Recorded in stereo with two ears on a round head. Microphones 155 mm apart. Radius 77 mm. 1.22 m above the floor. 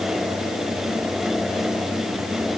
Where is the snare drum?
I don't hear a snare drum.